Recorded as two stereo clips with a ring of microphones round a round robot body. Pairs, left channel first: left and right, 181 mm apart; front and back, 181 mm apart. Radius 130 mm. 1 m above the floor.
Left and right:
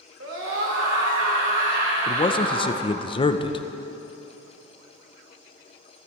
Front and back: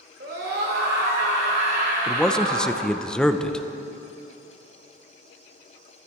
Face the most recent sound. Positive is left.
turn(degrees=80)